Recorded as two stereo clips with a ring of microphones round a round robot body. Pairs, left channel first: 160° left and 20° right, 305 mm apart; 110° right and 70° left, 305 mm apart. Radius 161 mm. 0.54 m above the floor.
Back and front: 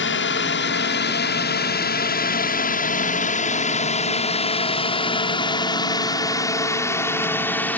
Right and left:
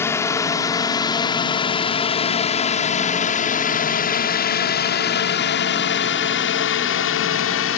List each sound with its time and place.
0.0 s a drone: 170° left; by 7.8 s 120° right